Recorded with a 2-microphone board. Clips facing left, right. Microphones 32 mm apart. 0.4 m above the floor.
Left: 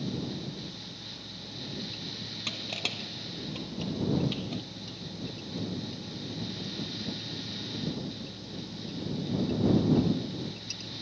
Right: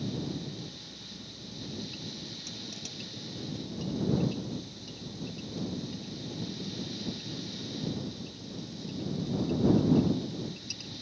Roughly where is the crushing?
Left.